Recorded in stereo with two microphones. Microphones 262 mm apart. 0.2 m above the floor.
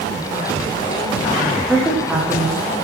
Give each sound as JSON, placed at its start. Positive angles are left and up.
{"t": 1.7, "sound": "a woman speaking", "side_deg": -5, "distance_m": 9.0}